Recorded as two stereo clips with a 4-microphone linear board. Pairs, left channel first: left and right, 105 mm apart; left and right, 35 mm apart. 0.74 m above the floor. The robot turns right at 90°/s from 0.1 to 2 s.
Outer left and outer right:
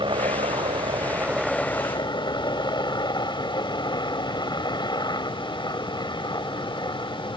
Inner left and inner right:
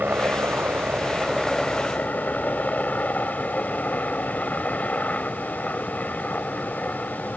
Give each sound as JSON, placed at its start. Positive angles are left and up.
{"t": 0.0, "sound": "a helicopter", "azimuth_deg": -125}